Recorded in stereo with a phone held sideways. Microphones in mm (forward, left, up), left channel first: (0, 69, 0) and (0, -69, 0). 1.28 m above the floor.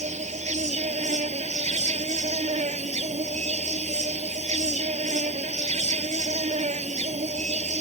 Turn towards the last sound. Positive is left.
turn(degrees=-55)  # may be behind; listen again after turning